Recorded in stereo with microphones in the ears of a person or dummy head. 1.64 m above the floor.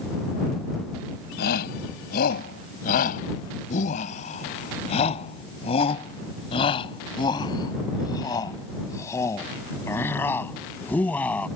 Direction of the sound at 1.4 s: 55° left (ahead or behind).